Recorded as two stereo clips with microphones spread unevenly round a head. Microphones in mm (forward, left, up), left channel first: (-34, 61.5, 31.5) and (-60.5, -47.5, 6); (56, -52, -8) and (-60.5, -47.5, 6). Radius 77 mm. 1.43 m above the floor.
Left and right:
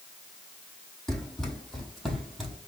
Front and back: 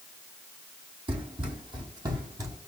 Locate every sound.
1.1 s running footsteps: 150° left, 2.5 m